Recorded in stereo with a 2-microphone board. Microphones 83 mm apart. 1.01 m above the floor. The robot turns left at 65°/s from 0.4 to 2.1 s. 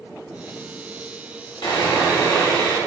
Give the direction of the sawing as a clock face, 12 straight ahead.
10 o'clock.